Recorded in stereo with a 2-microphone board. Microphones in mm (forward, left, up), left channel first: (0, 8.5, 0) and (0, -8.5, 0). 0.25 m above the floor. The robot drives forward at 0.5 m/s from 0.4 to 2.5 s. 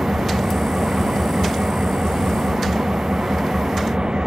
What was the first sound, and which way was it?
An engine running, 65° right (ahead or behind).